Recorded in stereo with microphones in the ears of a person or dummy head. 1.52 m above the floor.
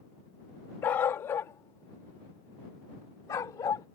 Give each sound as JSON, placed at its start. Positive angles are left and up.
{"t": 0.8, "sound": "a dog barking", "side_deg": 15}